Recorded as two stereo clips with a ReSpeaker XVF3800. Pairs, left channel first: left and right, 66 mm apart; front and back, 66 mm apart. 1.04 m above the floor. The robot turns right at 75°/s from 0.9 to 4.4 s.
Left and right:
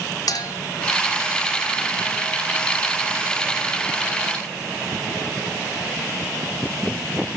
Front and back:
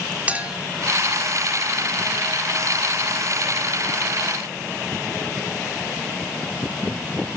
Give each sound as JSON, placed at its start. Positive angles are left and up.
{"t": 0.3, "sound": "a clink", "azimuth_deg": 110, "distance_m": 1.8}